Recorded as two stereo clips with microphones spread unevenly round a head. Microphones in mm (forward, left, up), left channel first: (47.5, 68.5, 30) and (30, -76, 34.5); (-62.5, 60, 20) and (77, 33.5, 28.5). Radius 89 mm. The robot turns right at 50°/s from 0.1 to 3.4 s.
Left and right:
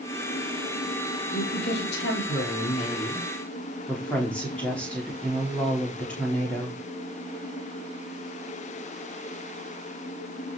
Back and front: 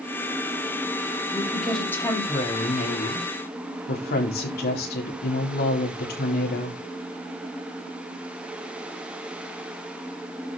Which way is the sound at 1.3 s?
60° left.